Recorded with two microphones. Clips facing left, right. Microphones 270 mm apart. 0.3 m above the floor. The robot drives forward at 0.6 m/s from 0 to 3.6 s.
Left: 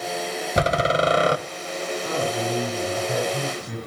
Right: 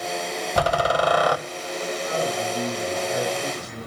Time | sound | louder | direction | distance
0.6 | a door slam | left 1 dB | 20° left (ahead or behind) | 1.3 m
2.0 | a man speaking | left 2 dB | 50° left (ahead or behind) | 6.5 m